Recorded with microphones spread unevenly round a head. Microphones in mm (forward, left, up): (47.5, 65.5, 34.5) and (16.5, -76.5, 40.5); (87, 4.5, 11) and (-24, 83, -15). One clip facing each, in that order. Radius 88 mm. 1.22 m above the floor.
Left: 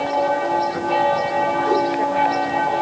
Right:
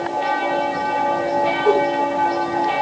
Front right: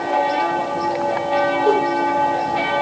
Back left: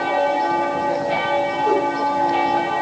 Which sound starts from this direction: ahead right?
A whoosh, at 1.6 s.